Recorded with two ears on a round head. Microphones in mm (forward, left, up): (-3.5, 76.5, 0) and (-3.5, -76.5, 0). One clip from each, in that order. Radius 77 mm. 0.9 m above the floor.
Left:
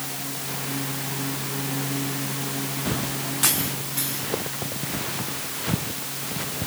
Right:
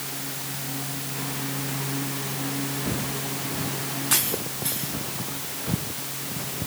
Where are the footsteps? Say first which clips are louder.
Left 2 dB; 60° left (ahead or behind); by 6.7 s 50° left (ahead or behind).